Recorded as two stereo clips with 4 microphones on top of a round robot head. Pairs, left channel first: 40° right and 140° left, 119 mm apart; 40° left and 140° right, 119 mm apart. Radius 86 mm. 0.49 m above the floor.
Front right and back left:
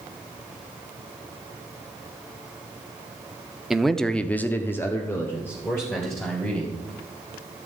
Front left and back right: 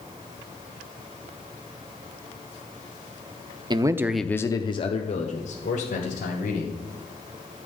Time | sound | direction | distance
3.7 | a man speaking | 130° right | 0.8 m